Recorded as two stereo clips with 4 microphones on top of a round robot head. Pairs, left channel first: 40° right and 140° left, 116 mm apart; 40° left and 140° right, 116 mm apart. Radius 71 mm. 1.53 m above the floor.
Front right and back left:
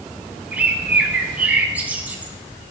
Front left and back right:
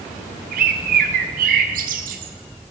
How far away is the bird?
About 0.9 m.